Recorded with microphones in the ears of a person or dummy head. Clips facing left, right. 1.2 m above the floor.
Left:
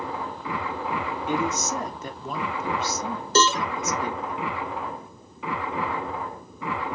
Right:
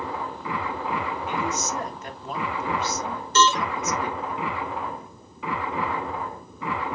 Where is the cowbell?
30° left (ahead or behind), 0.7 m.